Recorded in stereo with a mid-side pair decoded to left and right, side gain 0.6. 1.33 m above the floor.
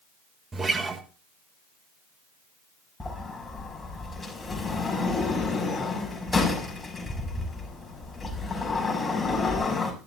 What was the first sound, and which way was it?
A guitar, 25° right.